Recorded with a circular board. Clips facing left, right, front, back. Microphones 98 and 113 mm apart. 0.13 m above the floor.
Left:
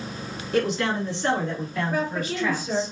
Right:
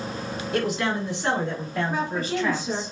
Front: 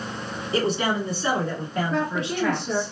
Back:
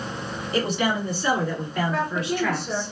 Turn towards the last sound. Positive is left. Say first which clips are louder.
# left 1 dB, even
turn(degrees=-105)